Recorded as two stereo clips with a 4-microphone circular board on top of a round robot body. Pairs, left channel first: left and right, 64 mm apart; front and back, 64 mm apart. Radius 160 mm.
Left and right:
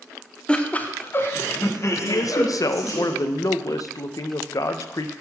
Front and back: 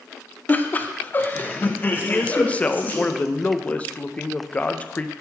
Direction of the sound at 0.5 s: 30° left.